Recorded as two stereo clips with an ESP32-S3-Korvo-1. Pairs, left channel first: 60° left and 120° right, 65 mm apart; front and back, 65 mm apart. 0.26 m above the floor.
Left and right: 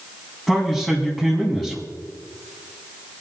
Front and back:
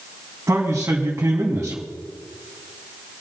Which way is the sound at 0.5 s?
145° left.